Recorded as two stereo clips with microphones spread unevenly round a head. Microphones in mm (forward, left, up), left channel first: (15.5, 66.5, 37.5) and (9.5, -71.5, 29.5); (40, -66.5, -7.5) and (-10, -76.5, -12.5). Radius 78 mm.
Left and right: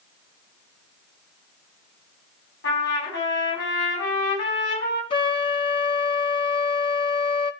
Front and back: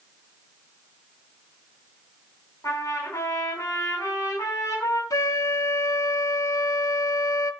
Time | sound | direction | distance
2.6 | a trumpet | 85° left | 5 m
5.1 | a flute | 30° left | 0.9 m